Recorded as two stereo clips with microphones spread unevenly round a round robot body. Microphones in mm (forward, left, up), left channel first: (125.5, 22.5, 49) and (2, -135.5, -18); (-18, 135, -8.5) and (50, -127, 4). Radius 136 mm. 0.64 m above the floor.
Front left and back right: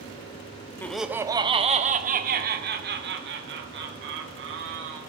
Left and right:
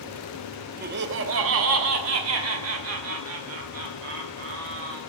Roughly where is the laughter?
Ahead right.